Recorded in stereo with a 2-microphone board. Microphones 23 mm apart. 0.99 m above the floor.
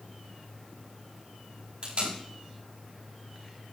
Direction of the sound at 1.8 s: 55° right (ahead or behind).